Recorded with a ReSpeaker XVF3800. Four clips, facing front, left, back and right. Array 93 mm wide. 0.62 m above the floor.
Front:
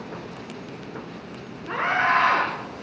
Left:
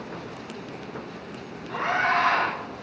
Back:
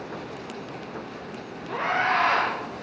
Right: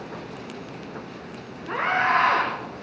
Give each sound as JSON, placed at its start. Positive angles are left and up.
{"t": 1.7, "sound": "a scream", "azimuth_deg": -40, "distance_m": 7.0}